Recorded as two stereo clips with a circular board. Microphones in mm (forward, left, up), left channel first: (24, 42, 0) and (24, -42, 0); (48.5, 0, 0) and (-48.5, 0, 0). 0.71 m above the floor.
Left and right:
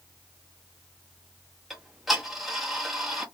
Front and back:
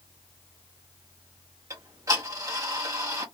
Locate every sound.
1.7 s ticking: 175° right, 1.1 m